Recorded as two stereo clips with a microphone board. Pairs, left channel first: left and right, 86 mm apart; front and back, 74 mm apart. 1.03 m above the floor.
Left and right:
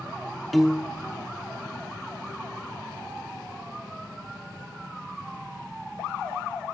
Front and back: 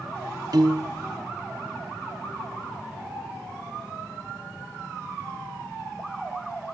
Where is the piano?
Straight behind, 0.9 m.